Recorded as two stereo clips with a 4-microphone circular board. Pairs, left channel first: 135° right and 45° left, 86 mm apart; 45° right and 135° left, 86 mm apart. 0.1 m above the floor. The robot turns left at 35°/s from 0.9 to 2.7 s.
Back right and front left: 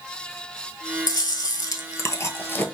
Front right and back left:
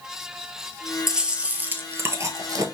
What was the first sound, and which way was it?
Chewing, 140° right.